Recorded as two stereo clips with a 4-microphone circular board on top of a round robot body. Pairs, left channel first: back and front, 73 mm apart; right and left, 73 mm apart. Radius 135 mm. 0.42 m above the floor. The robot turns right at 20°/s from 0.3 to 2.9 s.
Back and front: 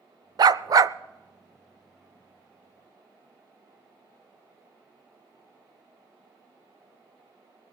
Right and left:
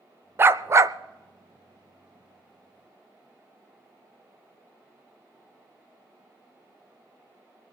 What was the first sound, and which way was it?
A dog barking, 30° left.